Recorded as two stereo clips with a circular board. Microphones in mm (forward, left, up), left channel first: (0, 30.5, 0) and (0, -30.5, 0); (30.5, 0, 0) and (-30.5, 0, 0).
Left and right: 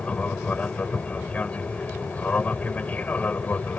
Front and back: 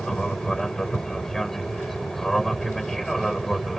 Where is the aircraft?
70° left; by 3.8 s 85° left.